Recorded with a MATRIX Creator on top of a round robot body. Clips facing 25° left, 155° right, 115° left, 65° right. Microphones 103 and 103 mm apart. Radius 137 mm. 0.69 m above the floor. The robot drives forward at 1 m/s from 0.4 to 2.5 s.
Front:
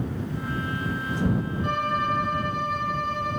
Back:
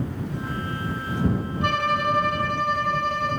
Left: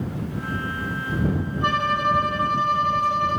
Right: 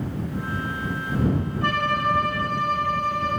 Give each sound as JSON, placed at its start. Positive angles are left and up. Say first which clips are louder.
{"t": 1.6, "sound": "a violin", "louder": "back 5 dB, left 2 dB", "azimuth_deg": 180, "distance_m": 0.7}